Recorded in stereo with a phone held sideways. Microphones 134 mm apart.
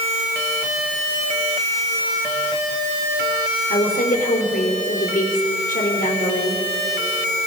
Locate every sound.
3.7 s a woman speaking: 75° left (ahead or behind), 4 m